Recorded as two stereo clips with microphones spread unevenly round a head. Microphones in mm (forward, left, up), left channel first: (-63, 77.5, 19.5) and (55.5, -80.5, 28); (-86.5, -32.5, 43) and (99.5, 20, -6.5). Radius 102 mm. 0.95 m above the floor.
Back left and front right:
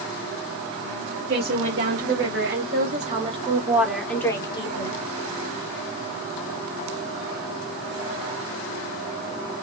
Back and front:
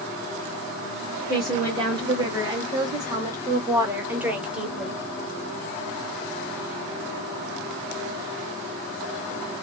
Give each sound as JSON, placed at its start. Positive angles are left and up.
{"t": 1.3, "sound": "a woman speaking", "azimuth_deg": -45, "distance_m": 1.6}